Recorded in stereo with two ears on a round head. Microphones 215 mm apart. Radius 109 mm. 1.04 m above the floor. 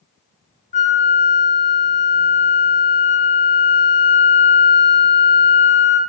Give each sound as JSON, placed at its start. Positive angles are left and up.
{"t": 0.7, "sound": "a flute", "side_deg": 30, "distance_m": 1.3}